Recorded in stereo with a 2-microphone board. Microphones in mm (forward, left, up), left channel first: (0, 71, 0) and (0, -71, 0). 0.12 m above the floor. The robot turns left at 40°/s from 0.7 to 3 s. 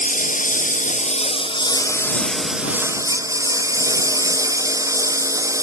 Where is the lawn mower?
70° left; by 5.6 s 25° right.